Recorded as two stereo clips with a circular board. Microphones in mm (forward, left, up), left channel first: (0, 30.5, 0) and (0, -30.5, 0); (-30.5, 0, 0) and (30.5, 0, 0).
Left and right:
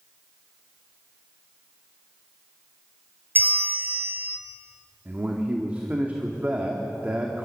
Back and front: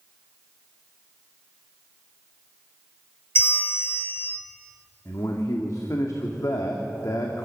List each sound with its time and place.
3.4 s a bell: 140° right, 1.4 m
5.0 s a man speaking: 155° right, 1.9 m